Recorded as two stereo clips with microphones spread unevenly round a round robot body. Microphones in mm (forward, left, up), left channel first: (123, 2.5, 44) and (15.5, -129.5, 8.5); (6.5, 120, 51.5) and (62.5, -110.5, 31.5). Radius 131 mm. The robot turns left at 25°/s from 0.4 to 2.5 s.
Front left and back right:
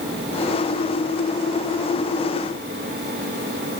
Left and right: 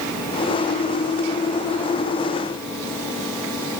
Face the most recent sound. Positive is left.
No sound to turn to.